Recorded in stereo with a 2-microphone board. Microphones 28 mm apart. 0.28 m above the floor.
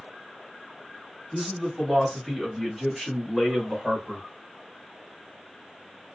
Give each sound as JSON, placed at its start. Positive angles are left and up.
{"t": 1.3, "sound": "a man speaking", "side_deg": 15, "distance_m": 1.7}